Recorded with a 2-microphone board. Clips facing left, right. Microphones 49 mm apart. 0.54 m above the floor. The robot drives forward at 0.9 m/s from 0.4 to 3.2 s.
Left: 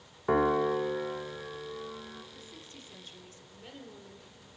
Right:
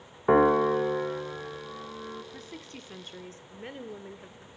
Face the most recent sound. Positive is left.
turn(degrees=-40)  # may be behind; listen again after turning